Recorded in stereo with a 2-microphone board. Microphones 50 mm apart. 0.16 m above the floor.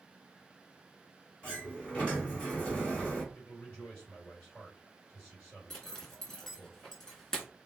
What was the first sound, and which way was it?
A sliding door, 20° left (ahead or behind).